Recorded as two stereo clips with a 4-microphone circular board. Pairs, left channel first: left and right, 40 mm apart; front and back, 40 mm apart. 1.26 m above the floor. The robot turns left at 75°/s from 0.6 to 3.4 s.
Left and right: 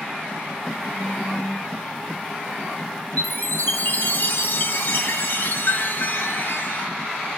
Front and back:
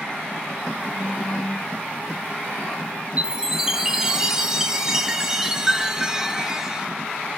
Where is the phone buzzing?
35° left, 1.6 m; by 1.7 s 25° right, 1.6 m.